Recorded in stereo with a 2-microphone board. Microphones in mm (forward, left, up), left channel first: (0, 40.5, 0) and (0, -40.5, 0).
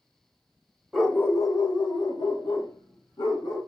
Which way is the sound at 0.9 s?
5° left (ahead or behind).